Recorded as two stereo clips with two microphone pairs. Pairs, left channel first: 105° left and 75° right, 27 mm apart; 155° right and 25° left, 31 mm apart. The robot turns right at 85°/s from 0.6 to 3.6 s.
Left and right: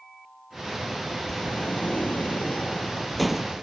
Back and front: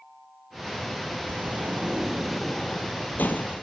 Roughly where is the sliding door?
Ahead left.